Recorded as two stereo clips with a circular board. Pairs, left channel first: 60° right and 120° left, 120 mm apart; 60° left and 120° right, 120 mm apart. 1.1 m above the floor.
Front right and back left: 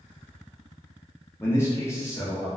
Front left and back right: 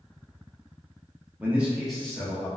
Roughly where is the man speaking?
Right.